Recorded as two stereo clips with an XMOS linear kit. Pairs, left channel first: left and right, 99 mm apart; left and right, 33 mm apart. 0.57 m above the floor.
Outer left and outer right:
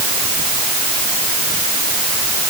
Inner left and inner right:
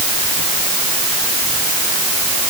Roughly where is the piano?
No piano in this recording.